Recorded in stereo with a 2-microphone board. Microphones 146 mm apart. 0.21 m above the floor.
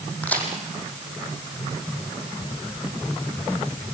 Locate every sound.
0.2 s a crack: 10° left (ahead or behind), 4.5 m